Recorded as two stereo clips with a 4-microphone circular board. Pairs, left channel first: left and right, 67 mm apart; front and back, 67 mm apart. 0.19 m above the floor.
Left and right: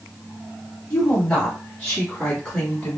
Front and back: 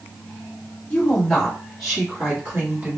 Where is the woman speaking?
40° left, 1.3 m; by 3.0 s 155° left, 1.4 m.